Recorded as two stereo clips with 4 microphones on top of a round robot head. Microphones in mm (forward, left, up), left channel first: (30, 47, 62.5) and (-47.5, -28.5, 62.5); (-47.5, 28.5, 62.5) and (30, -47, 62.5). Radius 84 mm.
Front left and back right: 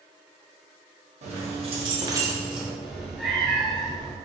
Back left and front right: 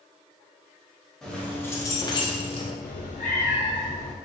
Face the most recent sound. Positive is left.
turn(degrees=135)